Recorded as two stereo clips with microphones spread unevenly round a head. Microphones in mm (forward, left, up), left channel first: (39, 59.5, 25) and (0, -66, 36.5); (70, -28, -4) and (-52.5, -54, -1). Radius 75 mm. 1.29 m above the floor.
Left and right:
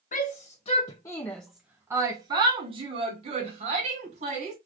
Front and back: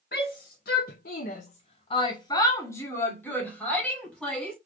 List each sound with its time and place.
0.1 s a shout: 45° left, 0.8 m; by 4.6 s 70° right, 2 m